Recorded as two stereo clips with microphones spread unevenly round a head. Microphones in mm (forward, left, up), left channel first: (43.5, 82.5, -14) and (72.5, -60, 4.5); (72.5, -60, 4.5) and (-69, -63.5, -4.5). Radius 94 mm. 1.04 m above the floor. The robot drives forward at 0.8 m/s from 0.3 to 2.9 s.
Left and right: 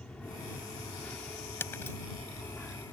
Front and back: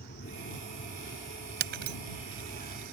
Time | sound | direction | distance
0.0 | an aircraft | 20° left | ?
1.6 | breaking glass | straight behind | ?